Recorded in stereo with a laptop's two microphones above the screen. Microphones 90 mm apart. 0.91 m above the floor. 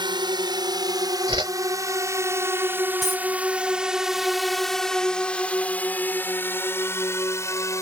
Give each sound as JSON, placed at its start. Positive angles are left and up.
{"t": 0.0, "sound": "a drone", "side_deg": -55}
{"t": 1.3, "sound": "a whoosh", "side_deg": -65}
{"t": 3.0, "sound": "a dropped coin", "side_deg": 0}